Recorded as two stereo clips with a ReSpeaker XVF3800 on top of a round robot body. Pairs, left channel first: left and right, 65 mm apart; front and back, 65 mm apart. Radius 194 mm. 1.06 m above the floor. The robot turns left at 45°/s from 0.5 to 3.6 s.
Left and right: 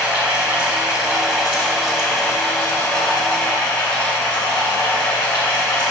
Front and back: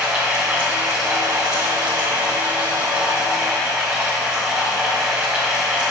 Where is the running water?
110° right, 1.4 m; by 5.9 s 110° left, 1.4 m.